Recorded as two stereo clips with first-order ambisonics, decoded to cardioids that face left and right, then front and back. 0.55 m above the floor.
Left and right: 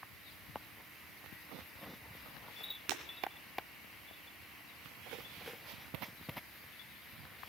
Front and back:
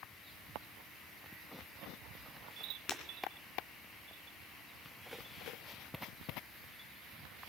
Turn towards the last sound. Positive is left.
turn(degrees=-55)